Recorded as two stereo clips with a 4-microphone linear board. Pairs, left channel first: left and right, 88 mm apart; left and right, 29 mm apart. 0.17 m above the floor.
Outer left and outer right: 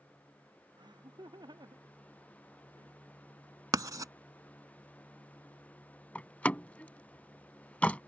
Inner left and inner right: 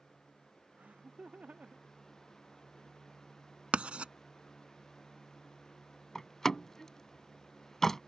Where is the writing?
45° right (ahead or behind).